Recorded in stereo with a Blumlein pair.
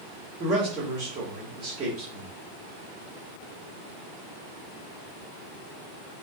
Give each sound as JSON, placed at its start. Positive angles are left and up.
{"t": 0.4, "sound": "a man speaking", "azimuth_deg": -25, "distance_m": 1.6}